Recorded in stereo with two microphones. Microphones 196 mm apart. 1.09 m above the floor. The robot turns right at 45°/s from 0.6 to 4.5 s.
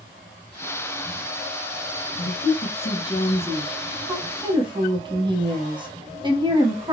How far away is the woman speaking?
About 0.9 m.